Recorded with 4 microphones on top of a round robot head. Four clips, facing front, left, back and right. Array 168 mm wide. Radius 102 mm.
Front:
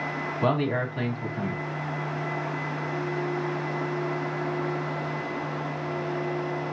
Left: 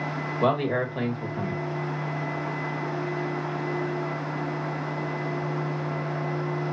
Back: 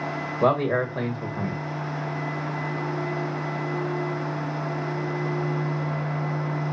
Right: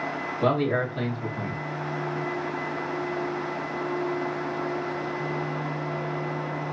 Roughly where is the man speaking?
Behind left.